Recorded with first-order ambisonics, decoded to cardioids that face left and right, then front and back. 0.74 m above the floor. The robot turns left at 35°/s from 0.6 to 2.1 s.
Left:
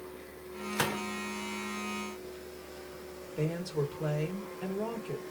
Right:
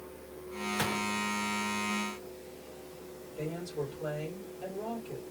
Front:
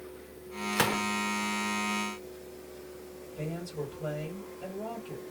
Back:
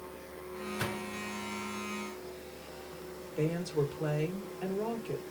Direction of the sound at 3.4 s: 140° left.